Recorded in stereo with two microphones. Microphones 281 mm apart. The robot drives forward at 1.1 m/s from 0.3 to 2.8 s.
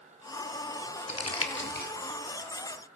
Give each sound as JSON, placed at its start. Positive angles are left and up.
{"t": 1.1, "sound": "crumpling", "side_deg": 70, "distance_m": 0.9}